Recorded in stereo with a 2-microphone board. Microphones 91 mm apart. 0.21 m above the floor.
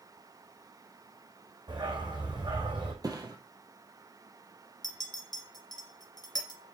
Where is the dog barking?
50° right (ahead or behind), 3 m.